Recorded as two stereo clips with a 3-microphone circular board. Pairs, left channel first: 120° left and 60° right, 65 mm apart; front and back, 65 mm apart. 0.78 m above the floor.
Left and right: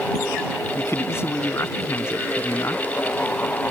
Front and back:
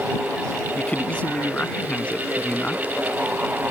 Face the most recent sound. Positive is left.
turn(degrees=70)